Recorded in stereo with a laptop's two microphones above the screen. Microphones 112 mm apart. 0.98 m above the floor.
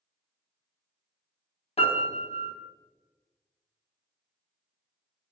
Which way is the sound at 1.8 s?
65° left (ahead or behind).